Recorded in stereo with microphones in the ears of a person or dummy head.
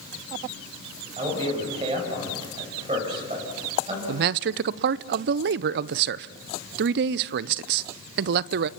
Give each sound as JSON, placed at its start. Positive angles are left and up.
{"t": 1.2, "sound": "a man speaking", "side_deg": -25, "distance_m": 7.0}
{"t": 4.1, "sound": "a man speaking", "side_deg": -60, "distance_m": 0.6}